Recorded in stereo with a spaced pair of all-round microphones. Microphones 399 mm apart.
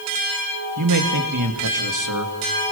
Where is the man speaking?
50° right (ahead or behind), 3 m.